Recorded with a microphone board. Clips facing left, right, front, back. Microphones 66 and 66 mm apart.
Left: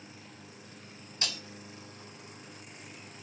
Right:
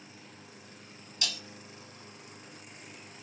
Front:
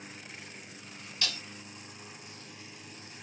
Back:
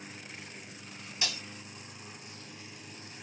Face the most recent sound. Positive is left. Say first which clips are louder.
# even, even
turn(degrees=120)